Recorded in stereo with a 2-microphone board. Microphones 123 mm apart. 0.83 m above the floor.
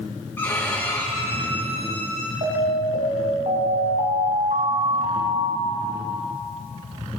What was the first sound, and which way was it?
A violin, 15° left (ahead or behind).